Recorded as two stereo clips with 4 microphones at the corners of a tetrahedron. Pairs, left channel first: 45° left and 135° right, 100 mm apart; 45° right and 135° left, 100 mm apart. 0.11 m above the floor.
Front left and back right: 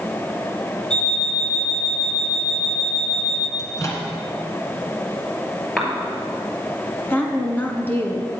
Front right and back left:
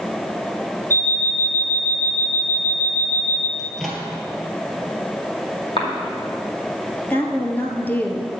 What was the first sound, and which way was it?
An alarm clock, 120° left.